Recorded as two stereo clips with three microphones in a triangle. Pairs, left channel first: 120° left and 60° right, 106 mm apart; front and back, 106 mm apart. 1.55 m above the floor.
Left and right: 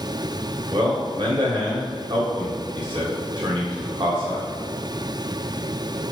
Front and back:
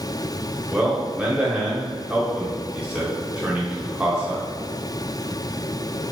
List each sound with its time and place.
0.7 s a man speaking: 100° right, 1.0 m